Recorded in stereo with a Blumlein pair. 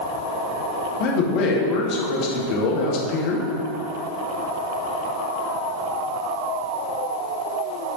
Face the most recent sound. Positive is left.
turn(degrees=40)